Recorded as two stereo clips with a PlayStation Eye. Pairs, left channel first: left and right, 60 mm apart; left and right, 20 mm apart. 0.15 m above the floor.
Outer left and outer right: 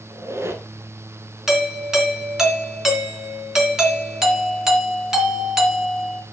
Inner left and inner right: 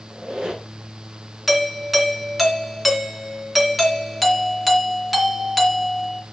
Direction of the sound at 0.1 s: 45° right (ahead or behind).